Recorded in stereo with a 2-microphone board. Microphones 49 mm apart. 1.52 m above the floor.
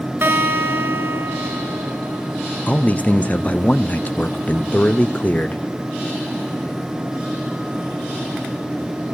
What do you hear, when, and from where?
0.2 s a guitar: 55° right (ahead or behind), 3 m
2.7 s a man speaking: 35° left (ahead or behind), 0.7 m